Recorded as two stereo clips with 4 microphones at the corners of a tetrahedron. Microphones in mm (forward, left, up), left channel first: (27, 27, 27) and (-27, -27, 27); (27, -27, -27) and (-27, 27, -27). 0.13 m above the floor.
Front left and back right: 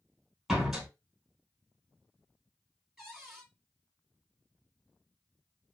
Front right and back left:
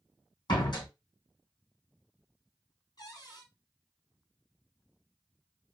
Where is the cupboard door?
55° right, 2.0 m.